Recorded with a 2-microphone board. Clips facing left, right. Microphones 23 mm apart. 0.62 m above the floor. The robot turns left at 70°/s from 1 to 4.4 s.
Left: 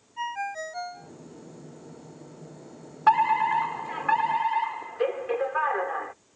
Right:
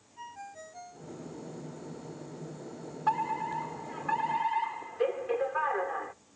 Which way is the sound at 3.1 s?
120° left.